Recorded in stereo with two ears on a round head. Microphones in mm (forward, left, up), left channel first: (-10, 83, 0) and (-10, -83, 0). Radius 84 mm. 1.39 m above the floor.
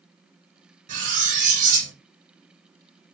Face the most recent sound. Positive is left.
turn(degrees=-45)  # may be behind; listen again after turning